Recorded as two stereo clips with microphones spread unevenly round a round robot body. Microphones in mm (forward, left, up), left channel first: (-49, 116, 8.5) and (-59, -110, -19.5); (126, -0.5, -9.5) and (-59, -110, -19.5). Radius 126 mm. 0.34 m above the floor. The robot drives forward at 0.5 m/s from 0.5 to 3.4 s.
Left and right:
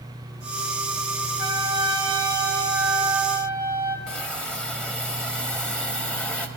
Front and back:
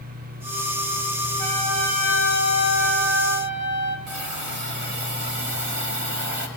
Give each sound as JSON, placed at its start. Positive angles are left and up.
{"t": 1.4, "sound": "a trumpet", "azimuth_deg": -125, "distance_m": 1.1}
{"t": 4.1, "sound": "a hiss", "azimuth_deg": 180, "distance_m": 1.1}